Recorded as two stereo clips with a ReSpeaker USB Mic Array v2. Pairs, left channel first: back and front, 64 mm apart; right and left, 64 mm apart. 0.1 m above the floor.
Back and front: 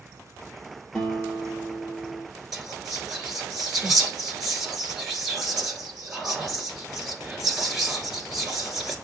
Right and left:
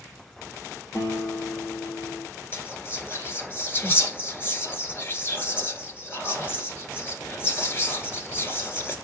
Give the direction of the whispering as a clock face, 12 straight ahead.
3 o'clock.